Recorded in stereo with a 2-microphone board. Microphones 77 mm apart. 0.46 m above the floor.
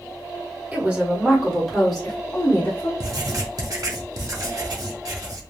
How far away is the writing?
About 0.8 m.